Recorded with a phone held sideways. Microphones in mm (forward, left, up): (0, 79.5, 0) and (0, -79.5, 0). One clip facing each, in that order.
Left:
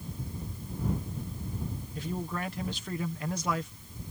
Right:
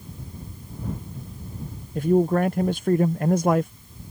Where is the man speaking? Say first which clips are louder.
Right 17 dB; 55° right (ahead or behind).